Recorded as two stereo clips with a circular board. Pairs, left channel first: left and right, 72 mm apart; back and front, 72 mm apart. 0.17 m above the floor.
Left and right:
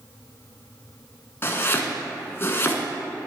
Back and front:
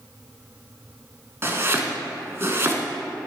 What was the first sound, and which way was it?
Chopping, 45° left.